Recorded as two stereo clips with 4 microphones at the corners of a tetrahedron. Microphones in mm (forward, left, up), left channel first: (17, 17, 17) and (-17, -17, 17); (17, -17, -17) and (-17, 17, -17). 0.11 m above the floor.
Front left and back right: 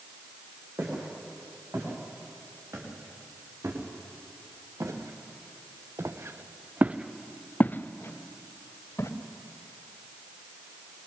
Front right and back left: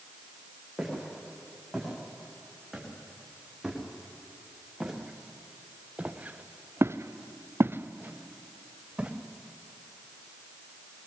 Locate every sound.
0.8 s footsteps: 135° right, 8 m; by 9.1 s 65° left, 2.5 m